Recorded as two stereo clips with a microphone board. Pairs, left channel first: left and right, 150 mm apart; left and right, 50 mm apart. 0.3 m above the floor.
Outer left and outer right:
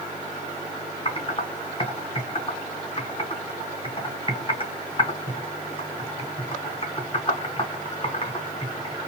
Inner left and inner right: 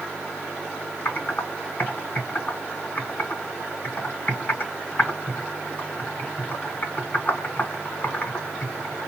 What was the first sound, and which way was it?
Typing on a keyboard, 35° left (ahead or behind).